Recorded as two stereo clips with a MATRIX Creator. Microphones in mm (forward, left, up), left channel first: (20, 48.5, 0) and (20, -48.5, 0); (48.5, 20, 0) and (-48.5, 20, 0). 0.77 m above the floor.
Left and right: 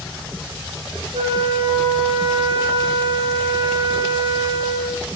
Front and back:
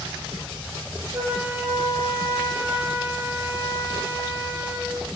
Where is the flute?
115° right, 5 m.